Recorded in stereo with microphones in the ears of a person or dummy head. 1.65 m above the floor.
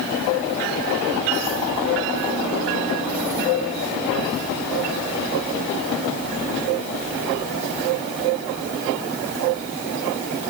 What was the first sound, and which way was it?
Only background noise.